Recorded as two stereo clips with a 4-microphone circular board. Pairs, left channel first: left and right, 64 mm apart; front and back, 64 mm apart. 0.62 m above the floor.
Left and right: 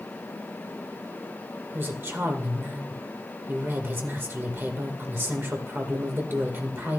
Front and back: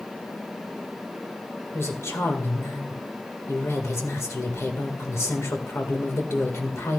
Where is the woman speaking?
40° right, 1.9 m.